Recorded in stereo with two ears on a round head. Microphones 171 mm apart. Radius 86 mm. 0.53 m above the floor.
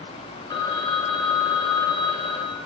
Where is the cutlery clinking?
I don't hear cutlery clinking.